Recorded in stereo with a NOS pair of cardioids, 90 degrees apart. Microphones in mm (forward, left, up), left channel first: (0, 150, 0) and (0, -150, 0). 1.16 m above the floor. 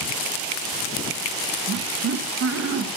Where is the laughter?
55° right, 1.4 m.